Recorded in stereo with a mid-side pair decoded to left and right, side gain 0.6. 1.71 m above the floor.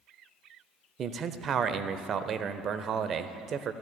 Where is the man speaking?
45° right, 0.6 m.